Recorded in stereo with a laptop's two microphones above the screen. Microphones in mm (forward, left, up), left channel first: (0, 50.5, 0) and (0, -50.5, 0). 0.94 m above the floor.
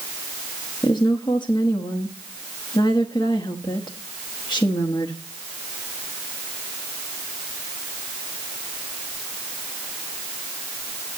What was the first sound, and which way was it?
A woman speaking, 50° left (ahead or behind).